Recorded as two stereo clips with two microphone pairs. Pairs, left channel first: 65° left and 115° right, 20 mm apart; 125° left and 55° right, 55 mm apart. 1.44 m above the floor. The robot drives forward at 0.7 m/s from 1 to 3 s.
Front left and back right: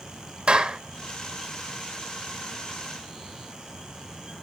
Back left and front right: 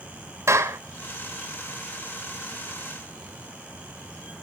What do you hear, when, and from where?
0.5 s a clap: 85° right, 1.7 m